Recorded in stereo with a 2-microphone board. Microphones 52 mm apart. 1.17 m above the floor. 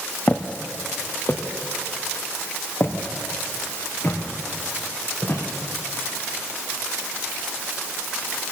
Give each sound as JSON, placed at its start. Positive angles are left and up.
{"t": 0.3, "sound": "footsteps", "side_deg": 30, "distance_m": 1.8}